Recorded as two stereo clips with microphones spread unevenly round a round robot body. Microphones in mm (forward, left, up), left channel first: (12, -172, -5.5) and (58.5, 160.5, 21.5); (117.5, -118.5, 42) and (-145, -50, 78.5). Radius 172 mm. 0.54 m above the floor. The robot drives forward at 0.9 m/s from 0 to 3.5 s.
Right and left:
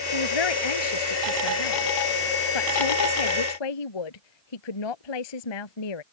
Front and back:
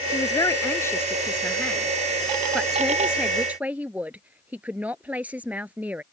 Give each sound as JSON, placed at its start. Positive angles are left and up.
{"t": 0.1, "sound": "a man speaking", "azimuth_deg": -90}